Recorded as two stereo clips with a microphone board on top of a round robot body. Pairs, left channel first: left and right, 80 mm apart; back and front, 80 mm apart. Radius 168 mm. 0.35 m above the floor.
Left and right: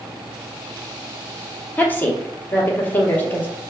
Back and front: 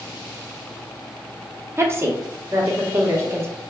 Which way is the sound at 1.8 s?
35° left.